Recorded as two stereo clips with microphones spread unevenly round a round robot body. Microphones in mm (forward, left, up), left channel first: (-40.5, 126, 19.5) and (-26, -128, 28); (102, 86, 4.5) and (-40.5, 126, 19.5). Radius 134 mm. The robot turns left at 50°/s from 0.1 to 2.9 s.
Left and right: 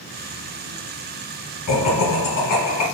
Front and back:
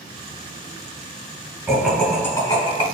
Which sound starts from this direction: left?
Laughter, at 1.7 s.